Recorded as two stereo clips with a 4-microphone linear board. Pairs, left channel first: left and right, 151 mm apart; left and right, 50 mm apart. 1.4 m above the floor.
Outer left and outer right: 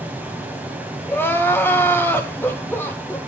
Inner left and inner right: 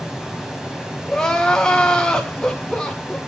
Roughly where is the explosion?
I don't hear an explosion.